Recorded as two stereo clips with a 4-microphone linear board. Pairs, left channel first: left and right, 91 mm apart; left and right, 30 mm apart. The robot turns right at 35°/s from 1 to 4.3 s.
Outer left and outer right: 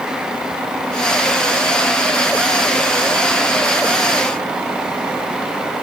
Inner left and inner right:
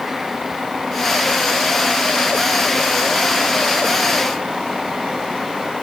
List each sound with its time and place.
Only background noise.